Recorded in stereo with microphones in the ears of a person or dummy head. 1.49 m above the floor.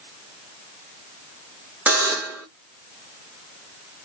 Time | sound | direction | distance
1.9 | a buzzer | 5° right (ahead or behind) | 0.7 m